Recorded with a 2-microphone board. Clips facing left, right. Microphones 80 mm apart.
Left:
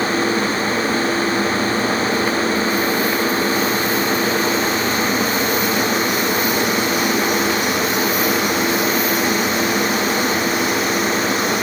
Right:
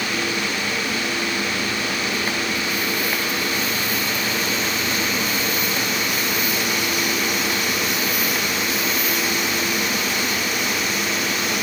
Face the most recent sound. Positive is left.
No sound to turn to.